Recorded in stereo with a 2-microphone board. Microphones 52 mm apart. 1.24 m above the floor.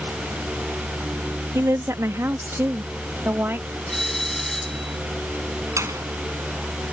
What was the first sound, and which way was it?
A woman speaking, 70° right (ahead or behind).